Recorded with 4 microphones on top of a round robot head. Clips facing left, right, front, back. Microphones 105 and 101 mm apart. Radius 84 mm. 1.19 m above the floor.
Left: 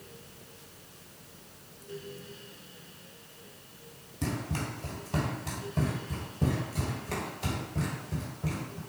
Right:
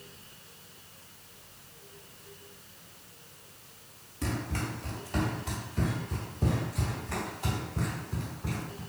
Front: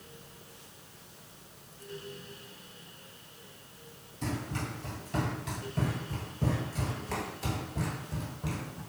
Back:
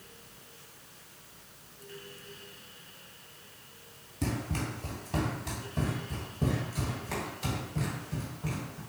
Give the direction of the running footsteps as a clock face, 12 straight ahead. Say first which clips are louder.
Even, back 2 dB; 7 o'clock.